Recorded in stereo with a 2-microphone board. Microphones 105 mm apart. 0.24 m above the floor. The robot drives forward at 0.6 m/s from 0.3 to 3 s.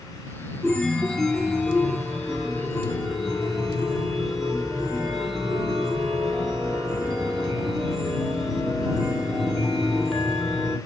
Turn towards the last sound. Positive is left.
turn(degrees=0)  # may be behind; listen again after turning